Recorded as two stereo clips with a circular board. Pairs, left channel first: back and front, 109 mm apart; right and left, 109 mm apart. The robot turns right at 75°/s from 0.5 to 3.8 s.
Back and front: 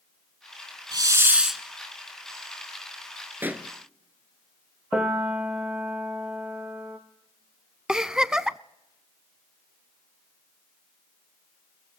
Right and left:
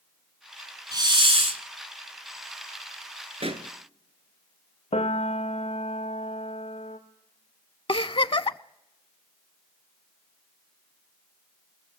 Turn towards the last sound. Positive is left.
turn(degrees=-80)